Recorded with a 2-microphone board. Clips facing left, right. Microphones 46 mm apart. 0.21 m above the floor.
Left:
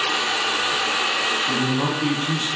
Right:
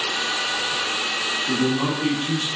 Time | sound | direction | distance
1.5 | a man speaking | 10° left (ahead or behind) | 1.4 m